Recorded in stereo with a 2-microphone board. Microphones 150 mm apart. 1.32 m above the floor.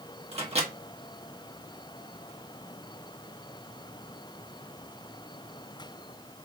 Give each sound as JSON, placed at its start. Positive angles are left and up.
{"t": 0.3, "sound": "a microwave", "side_deg": -45, "distance_m": 1.6}